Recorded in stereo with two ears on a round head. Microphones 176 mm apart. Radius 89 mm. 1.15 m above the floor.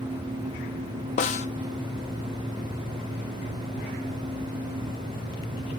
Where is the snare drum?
35° left (ahead or behind), 0.6 m.